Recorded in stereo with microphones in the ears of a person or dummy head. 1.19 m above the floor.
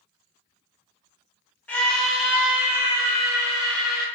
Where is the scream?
5° left (ahead or behind), 1.1 m; by 4.0 s 25° right (ahead or behind), 2 m.